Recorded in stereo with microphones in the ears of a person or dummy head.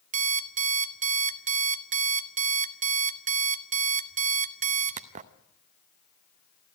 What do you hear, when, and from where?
0.1 s an alarm clock: 35° right (ahead or behind), 0.9 m